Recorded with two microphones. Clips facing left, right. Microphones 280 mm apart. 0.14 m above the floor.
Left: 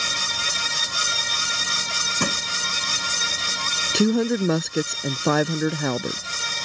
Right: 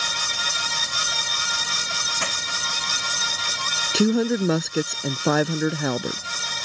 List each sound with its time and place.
2.2 s crushing: 50° left (ahead or behind)
3.9 s a woman speaking: centre (ahead or behind)